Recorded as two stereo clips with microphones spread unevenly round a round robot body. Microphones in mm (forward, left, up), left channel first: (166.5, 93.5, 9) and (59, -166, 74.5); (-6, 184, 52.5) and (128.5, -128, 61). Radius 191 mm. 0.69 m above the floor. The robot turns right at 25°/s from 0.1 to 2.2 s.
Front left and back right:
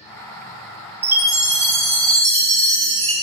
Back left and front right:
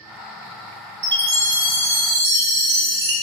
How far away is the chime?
About 3.5 m.